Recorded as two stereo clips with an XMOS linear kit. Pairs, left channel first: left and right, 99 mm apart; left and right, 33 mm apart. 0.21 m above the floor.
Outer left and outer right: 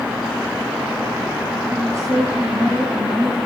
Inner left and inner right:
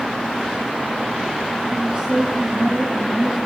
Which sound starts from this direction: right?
A woman speaking, at 1.7 s.